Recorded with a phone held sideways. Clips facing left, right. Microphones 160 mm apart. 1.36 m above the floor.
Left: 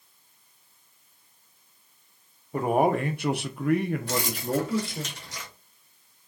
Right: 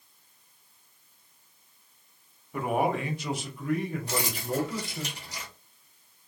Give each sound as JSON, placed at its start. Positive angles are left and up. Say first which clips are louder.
{"t": 2.5, "sound": "a man speaking", "louder": "left 4 dB", "side_deg": 35, "distance_m": 0.7}
{"t": 4.1, "sound": "keys jangling", "louder": "left 3 dB", "side_deg": -15, "distance_m": 1.4}